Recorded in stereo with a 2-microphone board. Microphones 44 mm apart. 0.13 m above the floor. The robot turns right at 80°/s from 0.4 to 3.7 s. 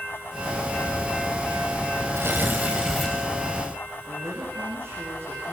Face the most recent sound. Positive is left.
turn(degrees=-65)  # may be behind; listen again after turning